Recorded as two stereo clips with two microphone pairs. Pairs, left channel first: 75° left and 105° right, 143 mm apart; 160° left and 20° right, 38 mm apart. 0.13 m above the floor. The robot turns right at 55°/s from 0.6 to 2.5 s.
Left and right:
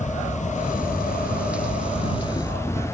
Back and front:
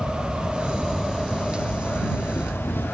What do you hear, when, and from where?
0.0 s an insect: 45° left; by 2.9 s 150° left